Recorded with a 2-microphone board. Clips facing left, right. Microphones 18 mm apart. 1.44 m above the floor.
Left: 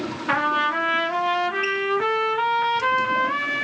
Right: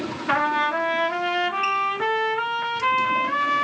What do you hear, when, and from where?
0.3 s a trumpet: 10° left (ahead or behind), 1.8 m